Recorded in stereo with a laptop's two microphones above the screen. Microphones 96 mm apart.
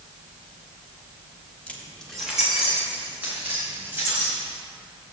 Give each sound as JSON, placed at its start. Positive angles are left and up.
{"t": 1.7, "sound": "keys jangling", "side_deg": 15, "distance_m": 1.3}